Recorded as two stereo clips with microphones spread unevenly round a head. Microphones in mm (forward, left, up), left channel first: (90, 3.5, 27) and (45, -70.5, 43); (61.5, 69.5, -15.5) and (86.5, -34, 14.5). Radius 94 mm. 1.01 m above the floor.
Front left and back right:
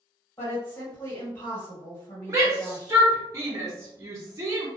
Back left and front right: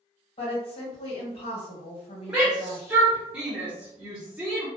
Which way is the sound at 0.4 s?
115° left.